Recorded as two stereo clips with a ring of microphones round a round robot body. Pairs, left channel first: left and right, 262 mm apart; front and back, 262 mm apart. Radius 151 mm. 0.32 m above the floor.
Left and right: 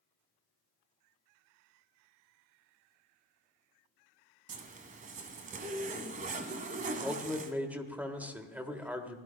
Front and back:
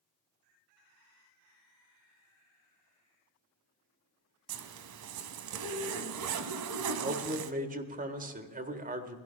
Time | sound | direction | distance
4.5 | a zipper | 155° right | 1.0 m
6.9 | a man speaking | 170° right | 1.5 m